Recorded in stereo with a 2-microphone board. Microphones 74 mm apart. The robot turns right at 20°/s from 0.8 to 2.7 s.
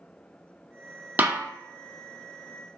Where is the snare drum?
25° right (ahead or behind), 0.6 m.